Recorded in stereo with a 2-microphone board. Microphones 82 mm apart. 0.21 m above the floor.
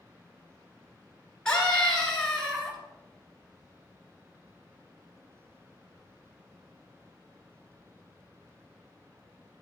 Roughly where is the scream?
Centre.